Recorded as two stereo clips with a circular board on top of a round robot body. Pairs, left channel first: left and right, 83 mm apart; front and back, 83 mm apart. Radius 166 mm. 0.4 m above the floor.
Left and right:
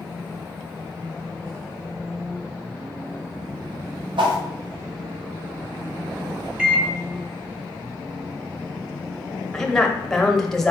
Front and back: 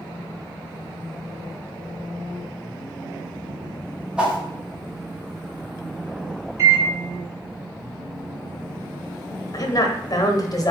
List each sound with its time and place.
4.2 s a whoosh: 100° right, 0.9 m
6.6 s a microwave: 170° right, 1.3 m
9.5 s a woman speaking: 5° left, 1.0 m